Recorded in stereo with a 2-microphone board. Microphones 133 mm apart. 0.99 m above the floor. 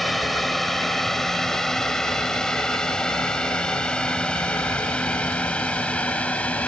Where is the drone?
Centre (ahead or behind); by 6.7 s 10° left (ahead or behind).